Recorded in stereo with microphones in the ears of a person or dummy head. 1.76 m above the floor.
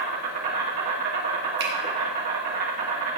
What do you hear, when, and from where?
0.0 s an insect: 40° right (ahead or behind), 2 m
1.6 s a finger snap: 60° right (ahead or behind), 2 m